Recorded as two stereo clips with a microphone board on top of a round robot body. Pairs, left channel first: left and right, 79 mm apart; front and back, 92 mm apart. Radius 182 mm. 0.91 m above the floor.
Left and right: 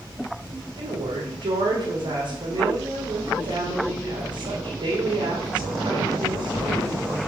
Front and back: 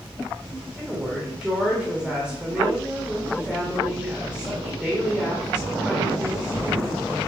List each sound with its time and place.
0.8 s a woman speaking: 95° right, 2.5 m